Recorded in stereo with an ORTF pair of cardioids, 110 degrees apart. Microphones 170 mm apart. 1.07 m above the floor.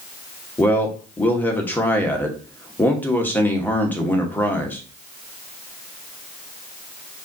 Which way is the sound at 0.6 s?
10° left.